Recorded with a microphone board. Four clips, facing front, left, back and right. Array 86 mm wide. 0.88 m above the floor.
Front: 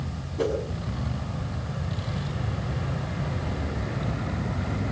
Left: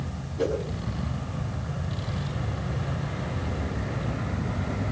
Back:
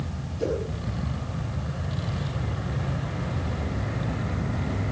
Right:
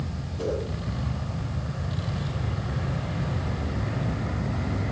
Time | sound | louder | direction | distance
0.4 | a whoosh | left 3 dB, front 1 dB | 10° left | 6.5 m